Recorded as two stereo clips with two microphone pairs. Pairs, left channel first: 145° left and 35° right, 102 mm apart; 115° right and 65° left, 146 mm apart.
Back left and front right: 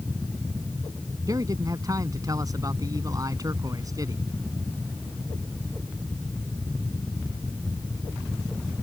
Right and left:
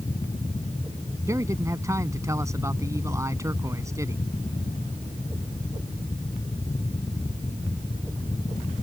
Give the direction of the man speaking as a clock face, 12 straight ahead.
12 o'clock.